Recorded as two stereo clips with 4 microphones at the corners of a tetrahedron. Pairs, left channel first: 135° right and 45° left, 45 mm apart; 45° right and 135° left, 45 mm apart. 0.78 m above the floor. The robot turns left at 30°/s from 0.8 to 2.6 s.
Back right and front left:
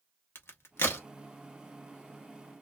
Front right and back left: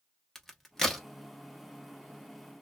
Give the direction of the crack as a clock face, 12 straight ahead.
4 o'clock.